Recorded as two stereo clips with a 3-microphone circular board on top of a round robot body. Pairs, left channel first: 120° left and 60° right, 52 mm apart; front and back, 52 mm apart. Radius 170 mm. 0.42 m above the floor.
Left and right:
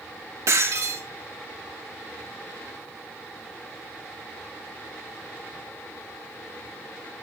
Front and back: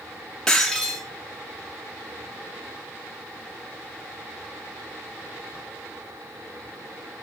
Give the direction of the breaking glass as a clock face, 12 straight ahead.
3 o'clock.